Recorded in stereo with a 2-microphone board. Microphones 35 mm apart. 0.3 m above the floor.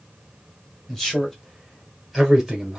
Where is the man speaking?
15° left (ahead or behind), 1.3 m; by 2.8 s 10° right (ahead or behind), 1.2 m.